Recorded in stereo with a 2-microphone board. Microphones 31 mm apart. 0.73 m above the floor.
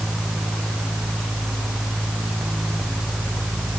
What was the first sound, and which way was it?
Only background noise.